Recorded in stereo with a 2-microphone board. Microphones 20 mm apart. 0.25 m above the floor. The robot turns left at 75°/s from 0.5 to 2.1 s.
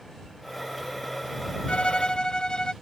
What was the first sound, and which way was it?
A violin, 80° left.